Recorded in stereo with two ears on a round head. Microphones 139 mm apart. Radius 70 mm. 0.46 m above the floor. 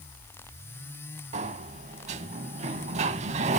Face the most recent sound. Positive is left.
turn(degrees=-45)  # may be behind; listen again after turning